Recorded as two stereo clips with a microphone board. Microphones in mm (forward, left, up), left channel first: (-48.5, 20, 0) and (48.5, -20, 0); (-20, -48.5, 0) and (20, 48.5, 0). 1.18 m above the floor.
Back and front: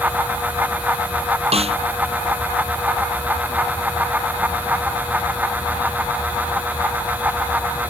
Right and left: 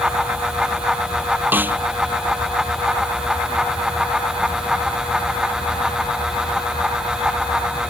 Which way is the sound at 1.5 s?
5° right.